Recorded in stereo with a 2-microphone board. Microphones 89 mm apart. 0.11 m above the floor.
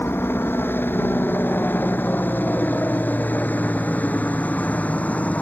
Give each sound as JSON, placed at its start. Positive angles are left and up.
{"t": 0.0, "sound": "a helicopter", "side_deg": 25}